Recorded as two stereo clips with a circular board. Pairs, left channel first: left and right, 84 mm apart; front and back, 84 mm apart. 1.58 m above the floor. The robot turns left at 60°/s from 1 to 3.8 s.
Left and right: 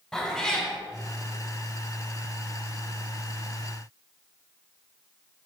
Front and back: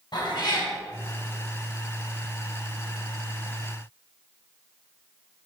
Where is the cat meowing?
5° left, 2.5 m.